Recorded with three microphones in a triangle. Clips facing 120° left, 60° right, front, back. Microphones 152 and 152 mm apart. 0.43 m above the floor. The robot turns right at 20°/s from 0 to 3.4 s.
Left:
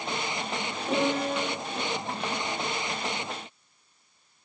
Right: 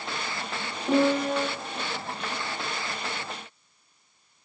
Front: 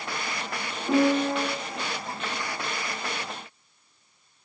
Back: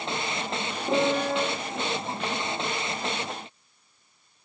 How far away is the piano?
About 1.6 m.